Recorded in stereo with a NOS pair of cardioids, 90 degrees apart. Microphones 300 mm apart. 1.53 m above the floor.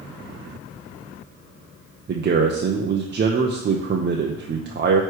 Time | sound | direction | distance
2.1 | a man speaking | 35° right | 0.9 m